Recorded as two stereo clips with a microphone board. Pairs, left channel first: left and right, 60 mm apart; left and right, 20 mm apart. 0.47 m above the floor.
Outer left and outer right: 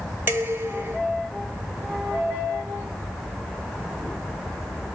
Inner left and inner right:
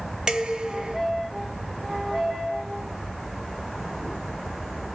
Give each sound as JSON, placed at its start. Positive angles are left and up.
{"t": 0.3, "sound": "dishes clattering", "side_deg": -35, "distance_m": 1.5}